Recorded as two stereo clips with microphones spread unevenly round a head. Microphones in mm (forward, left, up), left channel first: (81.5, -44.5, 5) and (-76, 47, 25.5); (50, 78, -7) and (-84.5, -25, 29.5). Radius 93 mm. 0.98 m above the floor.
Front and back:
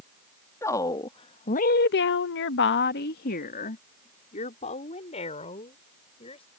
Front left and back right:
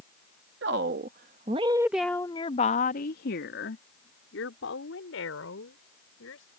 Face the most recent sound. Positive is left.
turn(degrees=30)